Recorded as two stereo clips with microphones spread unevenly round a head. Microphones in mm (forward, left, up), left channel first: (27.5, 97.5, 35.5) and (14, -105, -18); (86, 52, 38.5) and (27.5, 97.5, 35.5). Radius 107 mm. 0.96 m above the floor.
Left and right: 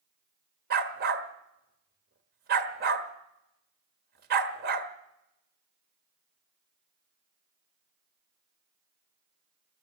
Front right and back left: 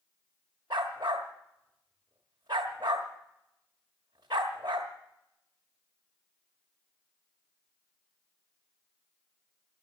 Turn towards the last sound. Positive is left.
turn(degrees=-145)